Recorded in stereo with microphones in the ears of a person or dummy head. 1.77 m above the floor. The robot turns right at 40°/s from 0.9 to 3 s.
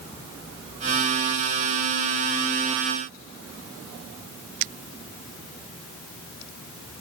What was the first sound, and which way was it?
Only background noise.